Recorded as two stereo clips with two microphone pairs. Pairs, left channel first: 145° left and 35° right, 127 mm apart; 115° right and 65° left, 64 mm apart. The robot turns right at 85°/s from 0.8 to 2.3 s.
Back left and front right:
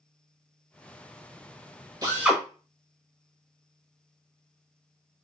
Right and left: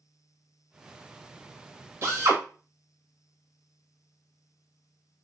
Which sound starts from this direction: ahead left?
A drill, at 2.0 s.